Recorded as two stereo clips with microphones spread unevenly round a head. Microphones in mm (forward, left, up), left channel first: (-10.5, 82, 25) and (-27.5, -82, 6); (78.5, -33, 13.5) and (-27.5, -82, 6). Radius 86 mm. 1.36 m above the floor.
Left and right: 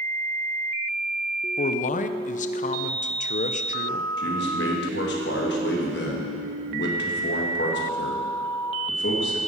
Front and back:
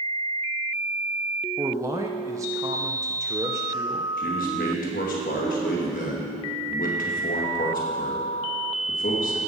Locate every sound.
1.6 s a man speaking: 130° left, 0.6 m
4.2 s a man speaking: 50° left, 2 m